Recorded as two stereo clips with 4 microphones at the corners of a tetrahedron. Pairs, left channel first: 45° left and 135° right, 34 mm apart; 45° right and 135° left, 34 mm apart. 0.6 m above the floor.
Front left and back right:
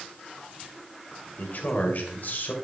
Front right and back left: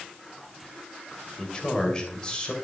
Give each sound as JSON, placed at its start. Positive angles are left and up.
{"t": 1.4, "sound": "a man speaking", "azimuth_deg": 15, "distance_m": 2.0}